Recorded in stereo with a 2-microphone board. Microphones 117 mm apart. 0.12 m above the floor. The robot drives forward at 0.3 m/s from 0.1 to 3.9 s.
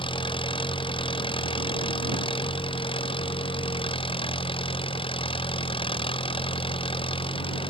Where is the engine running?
45° left (ahead or behind); by 7.7 s 50° left (ahead or behind).